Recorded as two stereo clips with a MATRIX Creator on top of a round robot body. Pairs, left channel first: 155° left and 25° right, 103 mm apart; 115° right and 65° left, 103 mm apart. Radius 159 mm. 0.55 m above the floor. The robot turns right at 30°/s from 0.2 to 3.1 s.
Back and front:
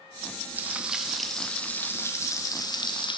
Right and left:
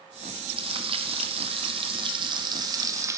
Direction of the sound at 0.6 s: 50° left.